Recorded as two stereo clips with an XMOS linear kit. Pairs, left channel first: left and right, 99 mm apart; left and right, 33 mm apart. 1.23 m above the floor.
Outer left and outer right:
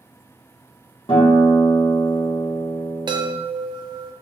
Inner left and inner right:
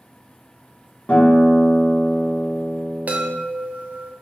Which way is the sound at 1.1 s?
60° left (ahead or behind).